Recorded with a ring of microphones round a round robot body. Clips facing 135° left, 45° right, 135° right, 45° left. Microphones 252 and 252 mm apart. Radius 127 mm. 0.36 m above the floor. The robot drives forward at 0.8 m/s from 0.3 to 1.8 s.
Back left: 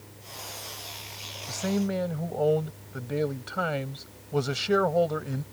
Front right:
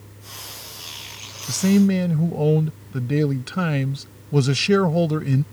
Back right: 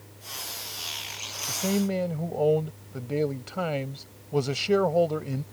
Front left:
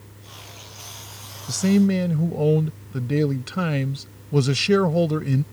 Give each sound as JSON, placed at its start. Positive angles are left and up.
{"t": 1.5, "sound": "a man speaking", "azimuth_deg": -10}